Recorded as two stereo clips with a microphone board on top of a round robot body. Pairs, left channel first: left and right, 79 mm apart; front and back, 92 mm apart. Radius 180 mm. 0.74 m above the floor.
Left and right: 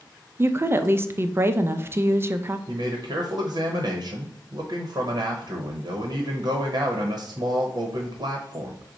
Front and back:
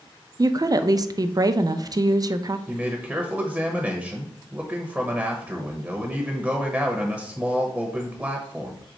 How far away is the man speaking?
About 1.0 m.